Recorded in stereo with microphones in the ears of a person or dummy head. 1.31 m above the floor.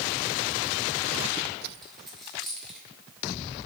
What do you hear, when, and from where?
1.8 s a dropped coin: centre (ahead or behind), 2 m